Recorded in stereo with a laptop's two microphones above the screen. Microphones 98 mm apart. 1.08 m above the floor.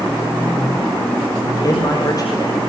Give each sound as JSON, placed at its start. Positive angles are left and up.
{"t": 1.6, "sound": "a man speaking", "side_deg": 40, "distance_m": 6.0}